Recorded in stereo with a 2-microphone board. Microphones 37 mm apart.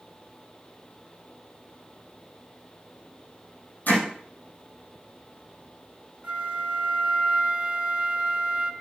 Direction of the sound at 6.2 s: 35° right (ahead or behind).